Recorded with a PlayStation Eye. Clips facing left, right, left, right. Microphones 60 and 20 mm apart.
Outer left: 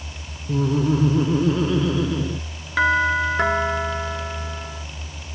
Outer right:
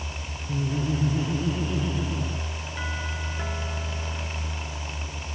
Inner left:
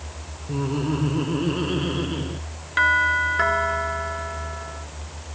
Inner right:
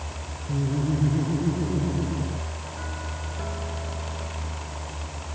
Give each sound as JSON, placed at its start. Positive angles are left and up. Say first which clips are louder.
{"t": 0.5, "sound": "laughter", "louder": "outer left 8 dB, inner left 2 dB", "side_deg": 80}
{"t": 2.8, "sound": "a doorbell", "louder": "outer left 18 dB, inner left 22 dB", "side_deg": 70}